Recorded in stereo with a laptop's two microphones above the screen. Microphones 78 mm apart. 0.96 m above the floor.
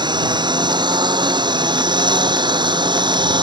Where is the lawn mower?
70° right (ahead or behind); by 3.4 s 75° right (ahead or behind).